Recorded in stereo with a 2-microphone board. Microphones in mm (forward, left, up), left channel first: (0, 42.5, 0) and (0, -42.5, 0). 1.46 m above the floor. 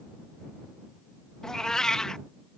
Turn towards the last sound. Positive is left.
turn(degrees=5)  # may be behind; listen again after turning